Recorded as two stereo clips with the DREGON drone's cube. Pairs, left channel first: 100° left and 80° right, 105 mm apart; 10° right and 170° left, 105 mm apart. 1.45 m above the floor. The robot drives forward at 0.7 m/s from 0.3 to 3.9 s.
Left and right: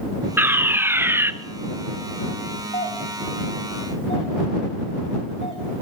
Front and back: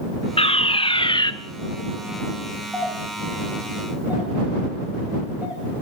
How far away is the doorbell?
About 9 m.